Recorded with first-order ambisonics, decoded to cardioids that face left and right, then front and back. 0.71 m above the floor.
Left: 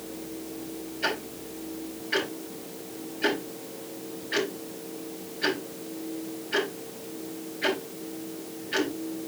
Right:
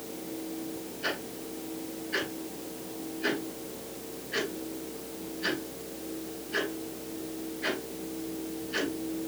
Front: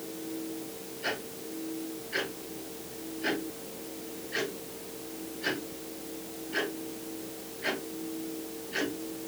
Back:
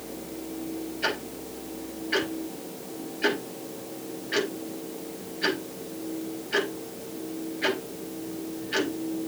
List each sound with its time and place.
1.0 s ticking: 140° left, 4.5 m